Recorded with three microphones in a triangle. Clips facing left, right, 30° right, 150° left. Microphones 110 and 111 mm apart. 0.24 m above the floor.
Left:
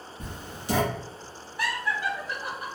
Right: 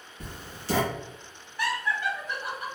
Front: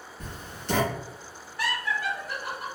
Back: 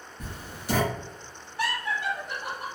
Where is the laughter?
135° left, 1.4 m.